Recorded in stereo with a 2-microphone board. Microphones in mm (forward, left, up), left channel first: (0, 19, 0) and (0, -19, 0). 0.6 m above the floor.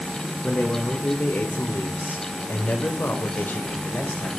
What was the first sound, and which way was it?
A man speaking, 40° left (ahead or behind).